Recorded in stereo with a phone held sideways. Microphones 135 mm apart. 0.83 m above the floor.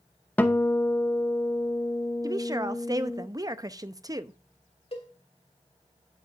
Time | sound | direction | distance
0.4 | a guitar | 10° left (ahead or behind) | 0.7 m
2.2 | a woman speaking | 25° right (ahead or behind) | 0.5 m
4.9 | a cowbell | 50° left (ahead or behind) | 2 m